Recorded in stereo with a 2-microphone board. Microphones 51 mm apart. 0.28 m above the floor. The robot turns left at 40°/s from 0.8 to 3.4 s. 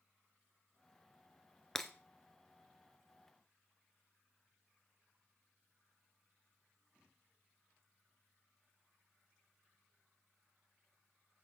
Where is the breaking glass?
5° left (ahead or behind), 1.1 m; by 1.9 s centre (ahead or behind), 1.1 m.